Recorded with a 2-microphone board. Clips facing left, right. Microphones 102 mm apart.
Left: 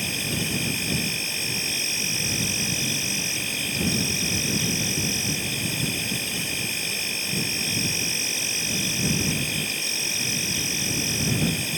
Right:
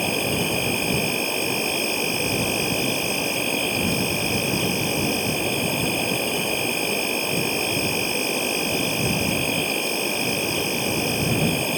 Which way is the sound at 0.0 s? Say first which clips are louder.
Right 7 dB; 50° right (ahead or behind).